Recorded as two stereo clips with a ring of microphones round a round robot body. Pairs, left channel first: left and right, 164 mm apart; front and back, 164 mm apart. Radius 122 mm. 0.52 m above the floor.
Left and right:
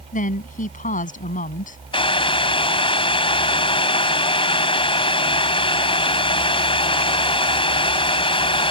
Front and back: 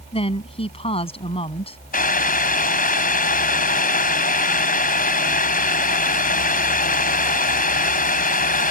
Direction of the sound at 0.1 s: 55° left.